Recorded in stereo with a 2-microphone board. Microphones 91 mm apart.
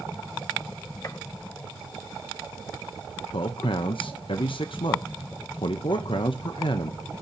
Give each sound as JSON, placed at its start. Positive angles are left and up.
{"t": 1.0, "sound": "a gunshot", "side_deg": 35, "distance_m": 1.0}
{"t": 3.3, "sound": "a man speaking", "side_deg": 65, "distance_m": 0.8}